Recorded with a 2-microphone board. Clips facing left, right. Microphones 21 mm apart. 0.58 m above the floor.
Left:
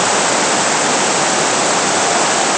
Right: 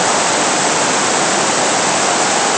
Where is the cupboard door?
No cupboard door in this recording.